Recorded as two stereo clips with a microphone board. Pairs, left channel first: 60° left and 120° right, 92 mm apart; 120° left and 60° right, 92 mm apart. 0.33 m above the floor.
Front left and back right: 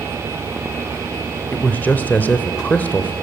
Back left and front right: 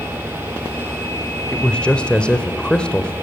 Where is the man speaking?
70° left, 0.9 m.